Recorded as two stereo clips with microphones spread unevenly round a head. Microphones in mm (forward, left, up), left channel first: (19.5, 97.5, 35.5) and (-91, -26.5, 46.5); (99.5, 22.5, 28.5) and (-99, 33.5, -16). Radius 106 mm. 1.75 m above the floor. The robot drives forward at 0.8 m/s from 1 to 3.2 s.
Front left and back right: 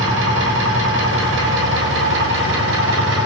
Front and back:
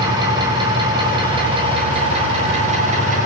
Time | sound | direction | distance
0.0 | an engine running | 110° right | 7 m